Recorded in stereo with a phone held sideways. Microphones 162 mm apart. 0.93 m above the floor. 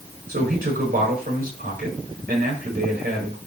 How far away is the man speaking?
About 4.5 m.